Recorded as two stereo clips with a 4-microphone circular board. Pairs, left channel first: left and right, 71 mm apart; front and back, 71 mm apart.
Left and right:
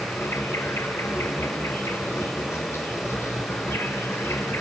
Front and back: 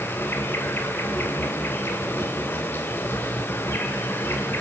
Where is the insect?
50° left, 1.8 m.